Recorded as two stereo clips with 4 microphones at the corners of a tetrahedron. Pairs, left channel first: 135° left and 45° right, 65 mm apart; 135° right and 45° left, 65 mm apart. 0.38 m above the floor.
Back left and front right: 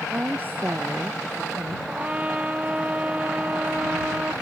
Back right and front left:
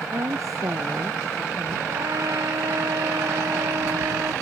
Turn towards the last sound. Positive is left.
turn(degrees=20)